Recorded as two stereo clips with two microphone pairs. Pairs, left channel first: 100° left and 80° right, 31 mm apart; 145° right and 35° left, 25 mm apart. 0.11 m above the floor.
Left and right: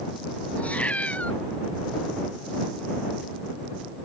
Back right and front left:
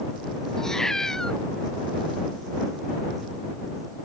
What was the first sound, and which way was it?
A cat meowing, 145° left.